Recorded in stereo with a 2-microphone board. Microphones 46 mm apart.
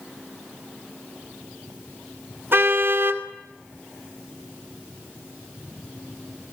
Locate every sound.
2.5 s a car horn: 55° right (ahead or behind), 2.5 m